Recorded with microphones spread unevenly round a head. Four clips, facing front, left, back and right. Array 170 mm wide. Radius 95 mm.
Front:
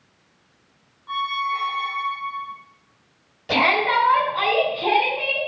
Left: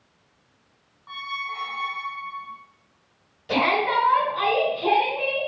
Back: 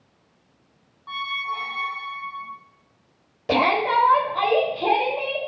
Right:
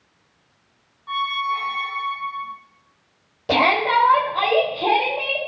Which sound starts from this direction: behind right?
A shout, at 3.5 s.